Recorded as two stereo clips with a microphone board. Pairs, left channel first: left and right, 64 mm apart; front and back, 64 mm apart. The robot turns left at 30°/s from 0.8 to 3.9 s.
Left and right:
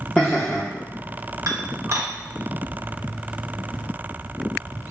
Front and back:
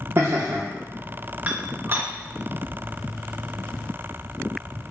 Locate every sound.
0.2 s laughter: 160° left, 0.6 m
1.5 s dishes clattering: 115° right, 0.8 m; by 2.1 s 135° right, 0.8 m